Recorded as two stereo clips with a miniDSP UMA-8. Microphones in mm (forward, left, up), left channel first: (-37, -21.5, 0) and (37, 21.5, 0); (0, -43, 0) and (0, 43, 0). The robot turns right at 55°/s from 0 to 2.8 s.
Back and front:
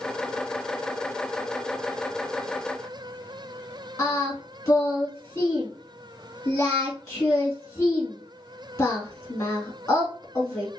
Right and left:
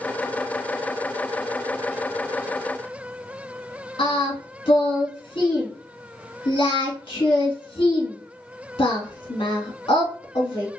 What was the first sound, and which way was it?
Singing, 100° right.